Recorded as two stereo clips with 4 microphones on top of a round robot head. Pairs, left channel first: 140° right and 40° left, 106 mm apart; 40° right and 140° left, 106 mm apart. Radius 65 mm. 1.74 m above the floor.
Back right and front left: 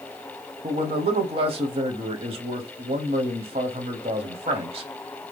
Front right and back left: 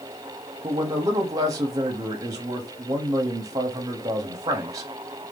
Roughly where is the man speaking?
Left.